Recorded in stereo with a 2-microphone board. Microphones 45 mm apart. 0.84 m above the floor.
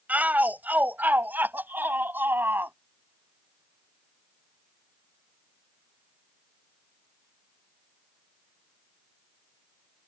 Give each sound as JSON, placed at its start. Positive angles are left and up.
{"t": 0.1, "sound": "a shout", "side_deg": -35}